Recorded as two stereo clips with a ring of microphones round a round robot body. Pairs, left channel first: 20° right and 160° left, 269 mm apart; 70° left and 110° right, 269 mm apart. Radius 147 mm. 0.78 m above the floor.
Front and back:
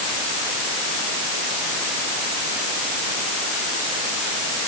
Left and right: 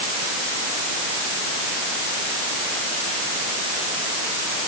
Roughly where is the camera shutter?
I don't hear a camera shutter.